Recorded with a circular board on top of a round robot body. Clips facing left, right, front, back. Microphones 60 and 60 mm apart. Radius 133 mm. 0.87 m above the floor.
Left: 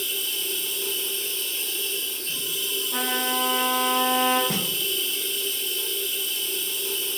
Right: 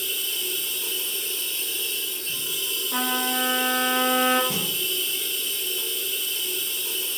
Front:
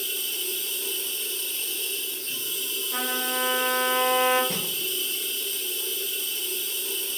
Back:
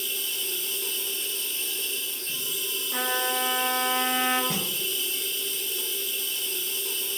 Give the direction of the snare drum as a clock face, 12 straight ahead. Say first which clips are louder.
Left 1 dB, back 1 dB; 9 o'clock.